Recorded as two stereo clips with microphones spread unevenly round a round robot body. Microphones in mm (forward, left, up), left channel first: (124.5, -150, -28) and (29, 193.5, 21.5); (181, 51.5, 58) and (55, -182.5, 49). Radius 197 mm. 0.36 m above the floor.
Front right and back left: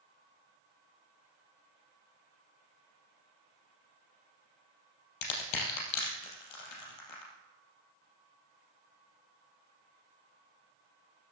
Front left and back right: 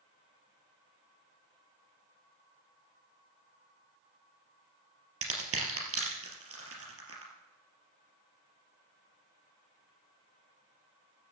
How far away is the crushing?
About 3.5 m.